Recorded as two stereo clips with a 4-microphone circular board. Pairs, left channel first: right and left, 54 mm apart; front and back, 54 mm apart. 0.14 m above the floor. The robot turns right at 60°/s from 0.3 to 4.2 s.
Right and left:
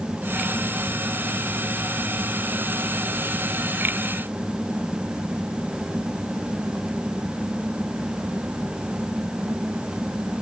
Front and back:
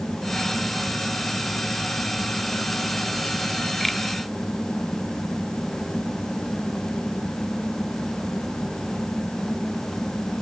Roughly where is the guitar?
No guitar in this recording.